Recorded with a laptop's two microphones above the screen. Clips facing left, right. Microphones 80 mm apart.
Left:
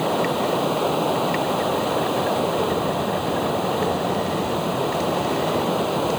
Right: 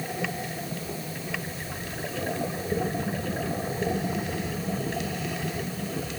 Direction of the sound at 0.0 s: 70° left (ahead or behind).